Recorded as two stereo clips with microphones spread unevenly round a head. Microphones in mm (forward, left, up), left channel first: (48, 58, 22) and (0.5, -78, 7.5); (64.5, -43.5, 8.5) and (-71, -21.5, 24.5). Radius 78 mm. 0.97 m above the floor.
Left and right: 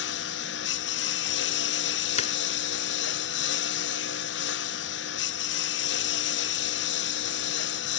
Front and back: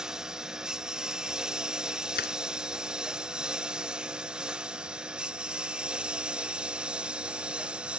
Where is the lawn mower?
85° left; by 8.0 s 90° left.